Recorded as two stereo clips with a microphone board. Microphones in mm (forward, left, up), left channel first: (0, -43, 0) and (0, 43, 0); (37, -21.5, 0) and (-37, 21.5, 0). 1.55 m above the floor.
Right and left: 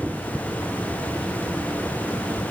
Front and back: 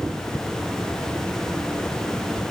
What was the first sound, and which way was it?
Only background noise.